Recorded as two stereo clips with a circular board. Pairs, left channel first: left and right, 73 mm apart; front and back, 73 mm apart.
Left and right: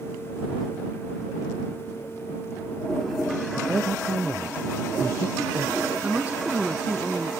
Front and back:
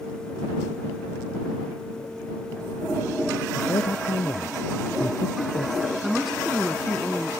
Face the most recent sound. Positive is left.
turn(degrees=-95)